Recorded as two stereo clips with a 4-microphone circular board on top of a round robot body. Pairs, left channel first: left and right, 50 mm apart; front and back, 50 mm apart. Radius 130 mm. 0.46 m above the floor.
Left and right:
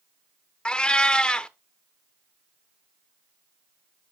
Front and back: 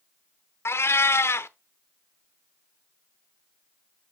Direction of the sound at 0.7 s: 20° left.